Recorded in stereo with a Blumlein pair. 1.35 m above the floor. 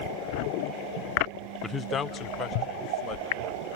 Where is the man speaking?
10° left, 0.6 m; by 3.8 s 35° left, 3 m.